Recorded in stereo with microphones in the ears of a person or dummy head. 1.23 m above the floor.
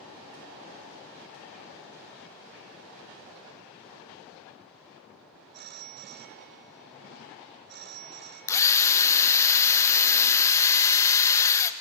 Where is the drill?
20° left (ahead or behind), 0.9 m.